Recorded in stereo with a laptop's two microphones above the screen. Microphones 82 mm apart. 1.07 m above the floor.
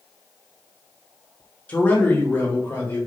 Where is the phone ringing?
I don't hear a phone ringing.